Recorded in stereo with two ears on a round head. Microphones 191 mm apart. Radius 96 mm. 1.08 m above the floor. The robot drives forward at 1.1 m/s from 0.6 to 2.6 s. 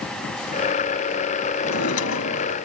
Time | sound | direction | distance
1.6 | a drawer | 80° left | ?